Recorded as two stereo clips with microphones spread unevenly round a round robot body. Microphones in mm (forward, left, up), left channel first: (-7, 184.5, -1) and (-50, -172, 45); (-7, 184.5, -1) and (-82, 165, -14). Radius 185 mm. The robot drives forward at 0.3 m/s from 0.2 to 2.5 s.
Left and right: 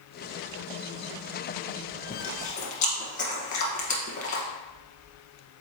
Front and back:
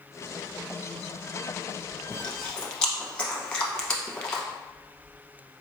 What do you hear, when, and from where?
2.1 s chewing: 85° left, 0.9 m; by 4.4 s 100° left, 0.9 m